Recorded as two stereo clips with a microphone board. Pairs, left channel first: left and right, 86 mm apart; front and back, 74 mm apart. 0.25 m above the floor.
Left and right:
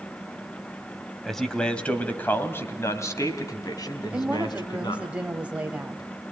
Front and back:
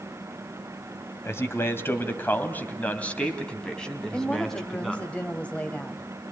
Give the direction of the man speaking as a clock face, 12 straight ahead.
12 o'clock.